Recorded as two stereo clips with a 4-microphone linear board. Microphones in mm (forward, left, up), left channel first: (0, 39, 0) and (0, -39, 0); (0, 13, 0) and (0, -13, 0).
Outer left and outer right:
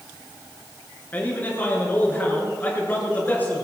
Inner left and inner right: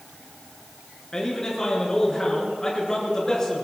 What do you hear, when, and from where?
1.1 s a man speaking: 25° left (ahead or behind), 5.5 m